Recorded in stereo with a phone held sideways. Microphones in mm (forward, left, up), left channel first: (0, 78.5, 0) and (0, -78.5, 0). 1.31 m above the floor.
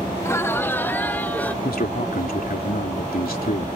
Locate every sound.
0.2 s laughter: 20° left (ahead or behind); by 1.5 s 10° left (ahead or behind)
1.6 s a man speaking: 80° left